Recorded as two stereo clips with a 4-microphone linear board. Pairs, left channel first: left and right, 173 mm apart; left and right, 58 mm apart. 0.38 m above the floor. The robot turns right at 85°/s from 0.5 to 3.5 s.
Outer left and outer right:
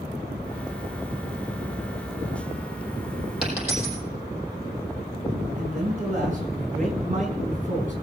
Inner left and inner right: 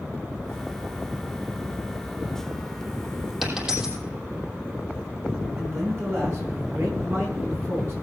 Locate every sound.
3.4 s a dropped coin: centre (ahead or behind), 4.5 m; by 4.0 s 10° right (ahead or behind), 4.5 m
5.6 s a man speaking: 50° right (ahead or behind), 4.5 m